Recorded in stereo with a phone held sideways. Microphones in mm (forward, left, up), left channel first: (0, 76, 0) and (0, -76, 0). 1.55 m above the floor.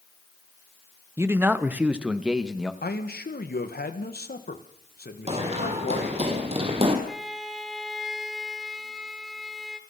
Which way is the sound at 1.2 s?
15° right (ahead or behind).